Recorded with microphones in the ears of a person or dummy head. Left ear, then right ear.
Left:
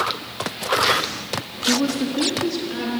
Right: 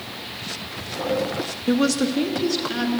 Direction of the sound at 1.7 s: 30° right (ahead or behind).